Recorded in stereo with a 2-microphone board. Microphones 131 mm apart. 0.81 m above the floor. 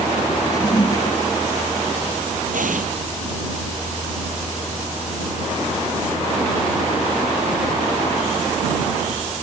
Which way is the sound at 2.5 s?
85° right.